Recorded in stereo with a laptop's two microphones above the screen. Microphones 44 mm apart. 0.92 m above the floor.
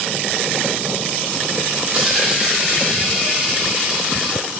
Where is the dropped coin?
20° right (ahead or behind), 8.5 m.